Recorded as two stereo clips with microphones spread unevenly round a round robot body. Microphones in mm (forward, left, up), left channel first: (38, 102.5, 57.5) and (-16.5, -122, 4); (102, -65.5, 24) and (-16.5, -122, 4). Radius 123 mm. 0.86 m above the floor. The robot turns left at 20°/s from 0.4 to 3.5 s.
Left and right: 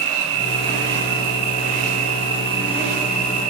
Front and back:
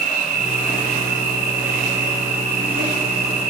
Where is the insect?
145° right, 1.7 m; by 3.5 s 155° left, 1.7 m.